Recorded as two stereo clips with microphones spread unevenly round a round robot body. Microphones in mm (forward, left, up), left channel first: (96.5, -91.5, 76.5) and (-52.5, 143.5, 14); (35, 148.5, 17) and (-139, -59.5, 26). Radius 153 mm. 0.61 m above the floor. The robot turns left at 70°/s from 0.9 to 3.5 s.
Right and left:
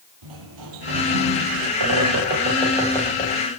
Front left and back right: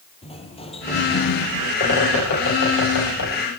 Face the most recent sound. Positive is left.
turn(degrees=-15)